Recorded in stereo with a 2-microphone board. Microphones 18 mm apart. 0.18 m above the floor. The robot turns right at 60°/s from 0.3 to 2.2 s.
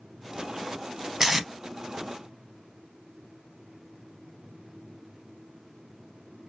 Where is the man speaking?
No man speaking in this recording.